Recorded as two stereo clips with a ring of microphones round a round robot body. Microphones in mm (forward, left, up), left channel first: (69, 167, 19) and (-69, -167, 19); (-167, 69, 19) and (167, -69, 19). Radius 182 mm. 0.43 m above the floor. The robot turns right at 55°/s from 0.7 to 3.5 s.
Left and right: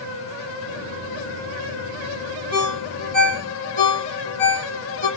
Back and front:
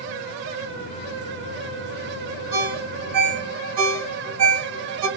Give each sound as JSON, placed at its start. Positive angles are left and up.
{"t": 2.5, "sound": "a ringtone", "azimuth_deg": -50, "distance_m": 2.5}